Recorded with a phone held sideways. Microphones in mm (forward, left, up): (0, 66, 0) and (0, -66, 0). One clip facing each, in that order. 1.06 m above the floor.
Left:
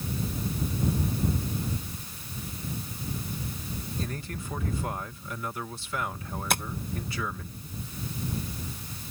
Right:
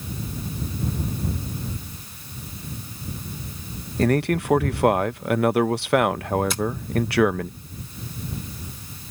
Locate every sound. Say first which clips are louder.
4.0 s a man speaking: right 21 dB; 80° right
6.5 s tapping: right 4 dB; 60° left (ahead or behind)